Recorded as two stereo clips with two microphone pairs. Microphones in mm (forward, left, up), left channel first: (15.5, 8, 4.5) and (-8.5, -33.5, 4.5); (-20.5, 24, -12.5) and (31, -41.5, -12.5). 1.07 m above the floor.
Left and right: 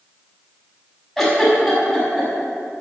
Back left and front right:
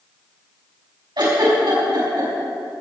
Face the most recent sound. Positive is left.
turn(degrees=-30)